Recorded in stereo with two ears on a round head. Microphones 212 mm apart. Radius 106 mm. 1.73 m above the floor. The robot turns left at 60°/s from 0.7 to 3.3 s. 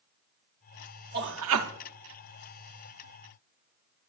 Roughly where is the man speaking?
Ahead right.